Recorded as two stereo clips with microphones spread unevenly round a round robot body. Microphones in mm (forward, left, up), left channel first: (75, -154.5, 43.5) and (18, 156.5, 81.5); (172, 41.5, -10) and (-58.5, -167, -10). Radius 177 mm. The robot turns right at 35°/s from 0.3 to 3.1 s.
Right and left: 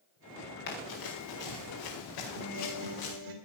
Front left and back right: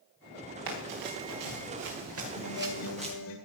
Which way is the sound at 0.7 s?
140° right.